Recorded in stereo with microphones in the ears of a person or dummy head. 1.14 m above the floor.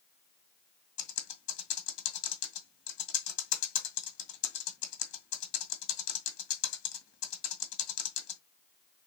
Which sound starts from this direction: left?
Typing on a keyboard, at 1.0 s.